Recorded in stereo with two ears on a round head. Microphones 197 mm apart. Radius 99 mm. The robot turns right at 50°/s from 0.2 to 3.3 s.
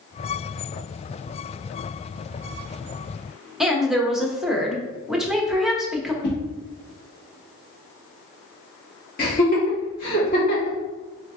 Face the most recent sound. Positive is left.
turn(degrees=45)  # may be behind; listen again after turning